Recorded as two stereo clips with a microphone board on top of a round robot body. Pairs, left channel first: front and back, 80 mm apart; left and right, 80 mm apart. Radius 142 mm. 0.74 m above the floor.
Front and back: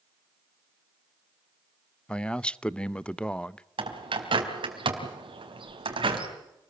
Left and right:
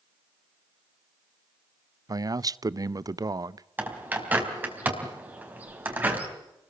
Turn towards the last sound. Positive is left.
turn(degrees=-160)